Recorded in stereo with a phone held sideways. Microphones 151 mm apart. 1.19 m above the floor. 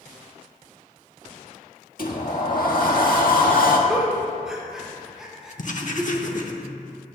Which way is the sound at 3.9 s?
5° right (ahead or behind).